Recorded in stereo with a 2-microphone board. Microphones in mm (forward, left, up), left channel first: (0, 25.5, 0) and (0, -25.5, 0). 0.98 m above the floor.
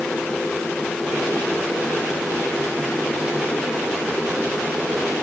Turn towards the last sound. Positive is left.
No sound to turn to.